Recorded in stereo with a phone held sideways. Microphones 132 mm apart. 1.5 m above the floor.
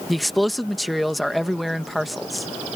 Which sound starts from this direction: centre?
A man speaking, at 0.1 s.